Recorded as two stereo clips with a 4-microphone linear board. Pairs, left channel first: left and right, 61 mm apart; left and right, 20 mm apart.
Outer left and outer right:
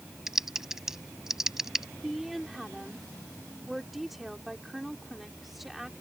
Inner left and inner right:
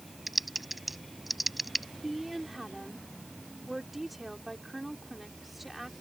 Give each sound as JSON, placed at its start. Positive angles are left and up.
{"t": 0.3, "sound": "typing on a keyboard", "side_deg": -5}
{"t": 2.0, "sound": "a woman speaking", "side_deg": -5}